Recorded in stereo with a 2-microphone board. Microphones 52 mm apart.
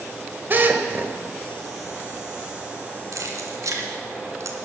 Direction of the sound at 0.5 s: 40° right (ahead or behind).